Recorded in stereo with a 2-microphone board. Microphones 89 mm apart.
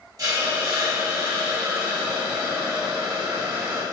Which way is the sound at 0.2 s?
50° right (ahead or behind).